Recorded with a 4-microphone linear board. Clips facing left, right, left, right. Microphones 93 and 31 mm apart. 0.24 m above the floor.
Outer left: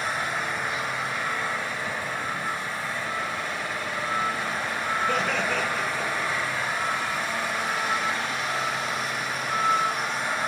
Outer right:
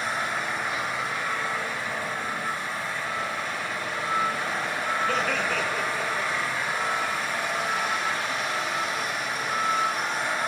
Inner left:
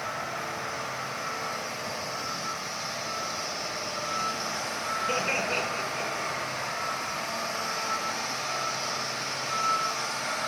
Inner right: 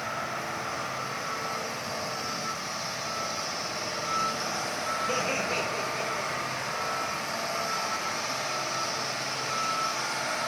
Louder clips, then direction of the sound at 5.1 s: Outer left 1 dB, inner left 3 dB; 15° left (ahead or behind).